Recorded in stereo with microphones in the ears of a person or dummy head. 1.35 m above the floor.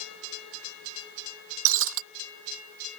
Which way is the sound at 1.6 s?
70° right (ahead or behind).